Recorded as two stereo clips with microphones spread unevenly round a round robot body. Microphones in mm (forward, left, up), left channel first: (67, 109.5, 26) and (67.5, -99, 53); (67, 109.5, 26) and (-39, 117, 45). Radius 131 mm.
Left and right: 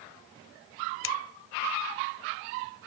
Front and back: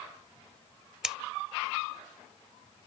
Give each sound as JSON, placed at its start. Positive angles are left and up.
{"t": 1.0, "sound": "scissors", "azimuth_deg": 90}